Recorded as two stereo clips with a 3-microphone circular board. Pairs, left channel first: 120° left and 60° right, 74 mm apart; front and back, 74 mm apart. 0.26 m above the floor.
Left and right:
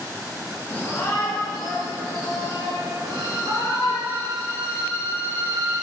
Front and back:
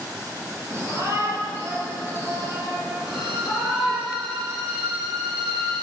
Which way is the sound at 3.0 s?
175° left.